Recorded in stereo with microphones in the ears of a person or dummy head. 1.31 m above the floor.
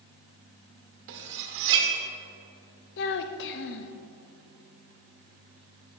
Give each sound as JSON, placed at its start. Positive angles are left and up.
{"t": 1.1, "sound": "cutlery clinking", "side_deg": -65, "distance_m": 1.2}
{"t": 3.0, "sound": "a child speaking", "side_deg": 60, "distance_m": 0.5}